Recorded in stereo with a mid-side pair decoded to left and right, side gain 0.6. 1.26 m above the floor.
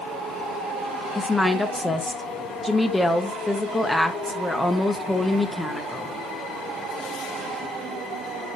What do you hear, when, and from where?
1.1 s a woman speaking: 10° left, 0.8 m